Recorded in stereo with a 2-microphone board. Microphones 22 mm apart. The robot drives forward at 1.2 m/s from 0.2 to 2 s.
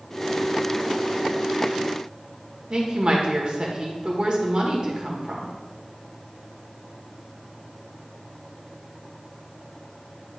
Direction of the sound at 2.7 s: 45° right (ahead or behind).